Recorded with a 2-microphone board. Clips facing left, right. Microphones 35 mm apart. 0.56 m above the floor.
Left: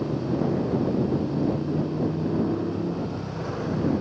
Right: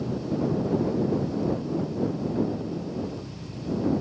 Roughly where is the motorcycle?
Left.